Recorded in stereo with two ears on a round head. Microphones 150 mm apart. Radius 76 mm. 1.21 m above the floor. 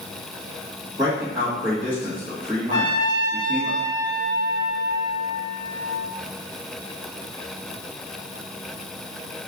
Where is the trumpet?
25° left (ahead or behind), 0.6 m.